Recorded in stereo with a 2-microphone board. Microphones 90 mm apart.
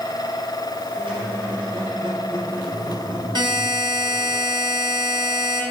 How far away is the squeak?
About 4.5 m.